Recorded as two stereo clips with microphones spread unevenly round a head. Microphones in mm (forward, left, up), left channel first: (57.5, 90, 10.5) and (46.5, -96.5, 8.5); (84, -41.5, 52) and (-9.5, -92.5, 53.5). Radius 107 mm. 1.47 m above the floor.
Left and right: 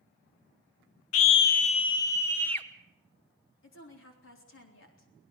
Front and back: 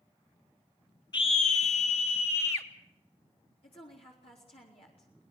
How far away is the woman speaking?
About 4 m.